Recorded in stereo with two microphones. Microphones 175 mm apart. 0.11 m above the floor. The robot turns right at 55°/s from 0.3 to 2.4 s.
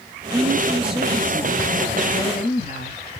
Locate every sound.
0.3 s a woman speaking: 35° right, 2 m; by 3.0 s 80° left, 2 m